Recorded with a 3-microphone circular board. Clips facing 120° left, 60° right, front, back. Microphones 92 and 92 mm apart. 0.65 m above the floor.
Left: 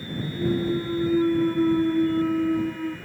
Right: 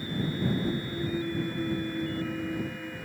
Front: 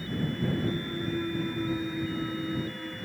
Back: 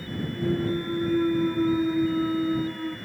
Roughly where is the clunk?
Behind left.